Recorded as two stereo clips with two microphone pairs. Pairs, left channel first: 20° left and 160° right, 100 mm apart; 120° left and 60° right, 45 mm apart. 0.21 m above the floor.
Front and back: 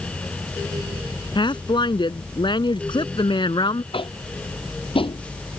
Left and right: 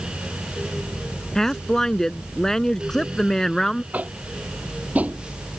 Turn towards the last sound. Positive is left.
turn(degrees=-5)